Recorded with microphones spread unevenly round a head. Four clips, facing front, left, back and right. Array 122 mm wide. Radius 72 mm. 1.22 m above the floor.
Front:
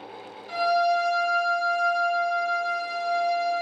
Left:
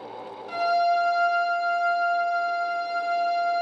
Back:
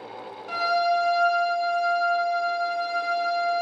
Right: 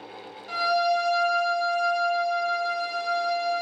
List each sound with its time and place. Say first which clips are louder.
0.5 s a violin: left 2 dB, front 1 dB; 155° right, 1.2 m